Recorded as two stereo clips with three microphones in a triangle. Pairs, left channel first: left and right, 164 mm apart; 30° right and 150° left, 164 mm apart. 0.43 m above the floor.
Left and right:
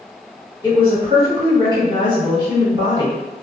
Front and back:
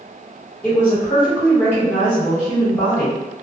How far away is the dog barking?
I don't hear a dog barking.